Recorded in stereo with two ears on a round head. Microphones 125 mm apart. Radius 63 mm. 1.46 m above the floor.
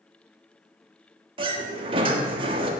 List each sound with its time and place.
1.4 s a sliding door: 40° right (ahead or behind), 1.3 m